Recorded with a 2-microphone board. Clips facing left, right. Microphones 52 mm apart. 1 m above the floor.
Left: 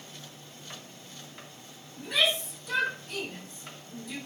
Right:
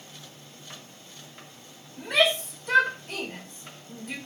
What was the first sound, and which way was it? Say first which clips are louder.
A shout: right 5 dB; 50° right (ahead or behind).